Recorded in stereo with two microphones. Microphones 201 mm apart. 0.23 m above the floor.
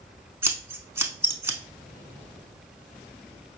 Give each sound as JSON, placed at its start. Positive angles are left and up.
{"t": 0.4, "sound": "scissors", "side_deg": -15, "distance_m": 0.6}